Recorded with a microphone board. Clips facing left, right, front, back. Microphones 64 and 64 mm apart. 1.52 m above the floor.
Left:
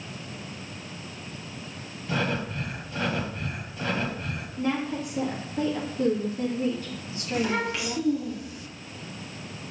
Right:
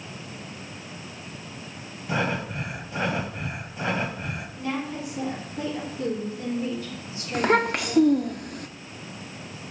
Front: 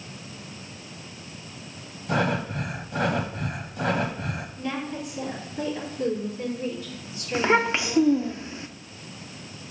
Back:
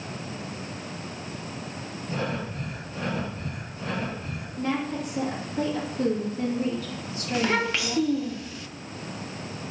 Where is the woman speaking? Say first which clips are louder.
Left 3 dB, back 5 dB; 140° left, 2.5 m.